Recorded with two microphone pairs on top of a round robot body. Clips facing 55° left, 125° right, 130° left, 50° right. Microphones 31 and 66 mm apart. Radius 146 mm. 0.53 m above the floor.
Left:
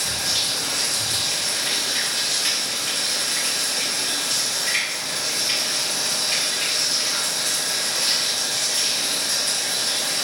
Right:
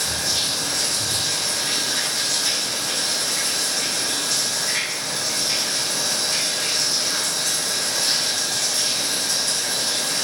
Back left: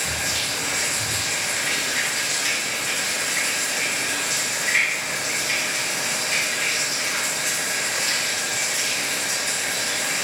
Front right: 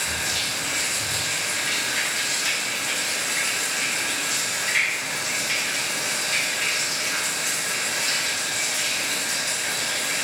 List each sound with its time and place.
0.0 s running water: 100° left, 3 m